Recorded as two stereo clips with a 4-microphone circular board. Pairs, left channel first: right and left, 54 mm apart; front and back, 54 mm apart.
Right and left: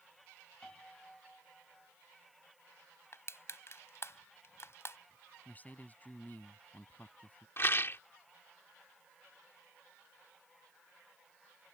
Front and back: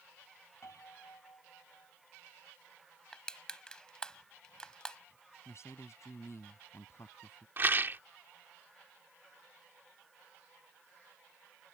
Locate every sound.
0.6 s a piano: 15° right
3.1 s crushing: 70° right
5.5 s a man speaking: 30° right
7.6 s a rattle: 135° right